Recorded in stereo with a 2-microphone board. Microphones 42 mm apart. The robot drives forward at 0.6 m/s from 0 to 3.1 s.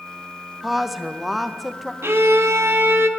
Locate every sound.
0.6 s a woman speaking: 5° right (ahead or behind), 0.8 m
2.0 s a violin: 75° right (ahead or behind), 0.8 m; by 3.1 s 60° right (ahead or behind), 0.9 m